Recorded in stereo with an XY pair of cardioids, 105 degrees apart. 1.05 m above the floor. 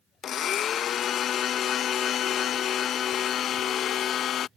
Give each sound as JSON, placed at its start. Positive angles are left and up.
{"t": 0.2, "sound": "a blender", "azimuth_deg": 65}